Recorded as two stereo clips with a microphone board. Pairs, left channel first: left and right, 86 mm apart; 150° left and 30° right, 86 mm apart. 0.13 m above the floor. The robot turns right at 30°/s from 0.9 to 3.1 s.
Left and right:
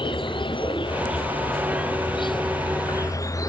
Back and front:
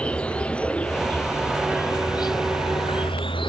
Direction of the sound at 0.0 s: 75° left.